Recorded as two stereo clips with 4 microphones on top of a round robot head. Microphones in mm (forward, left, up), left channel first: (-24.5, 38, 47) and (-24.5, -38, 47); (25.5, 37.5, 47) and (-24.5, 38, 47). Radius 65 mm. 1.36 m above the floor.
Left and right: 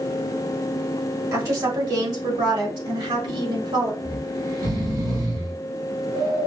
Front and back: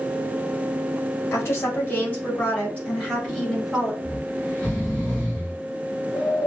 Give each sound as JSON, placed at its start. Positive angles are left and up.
{"t": 1.3, "sound": "a woman speaking", "azimuth_deg": -40, "distance_m": 1.7}
{"t": 4.0, "sound": "snoring", "azimuth_deg": -65, "distance_m": 1.8}